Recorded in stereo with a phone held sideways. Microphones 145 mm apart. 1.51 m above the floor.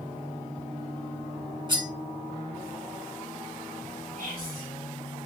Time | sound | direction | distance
1.7 | cutlery clinking | 30° right (ahead or behind) | 1.1 m
4.2 | whispering | 75° right (ahead or behind) | 1.3 m